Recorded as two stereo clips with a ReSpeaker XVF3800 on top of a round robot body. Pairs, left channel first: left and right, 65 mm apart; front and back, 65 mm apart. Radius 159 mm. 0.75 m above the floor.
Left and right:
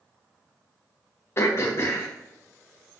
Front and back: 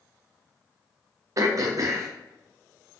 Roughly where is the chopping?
No chopping in this recording.